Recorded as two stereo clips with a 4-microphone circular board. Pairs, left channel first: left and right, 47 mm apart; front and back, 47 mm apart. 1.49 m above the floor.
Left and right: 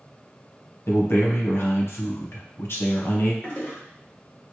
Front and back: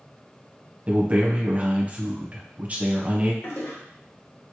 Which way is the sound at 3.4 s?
35° left.